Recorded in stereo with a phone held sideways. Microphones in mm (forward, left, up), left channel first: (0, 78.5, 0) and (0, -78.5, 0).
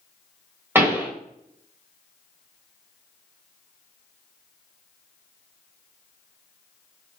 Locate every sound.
0.8 s a pop: 15° right (ahead or behind), 1.5 m